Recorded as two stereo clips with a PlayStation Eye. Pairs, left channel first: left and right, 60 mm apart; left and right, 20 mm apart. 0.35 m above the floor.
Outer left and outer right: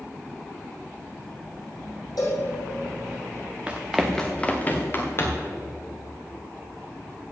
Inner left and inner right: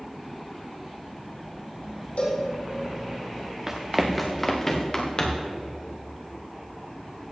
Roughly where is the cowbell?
Left.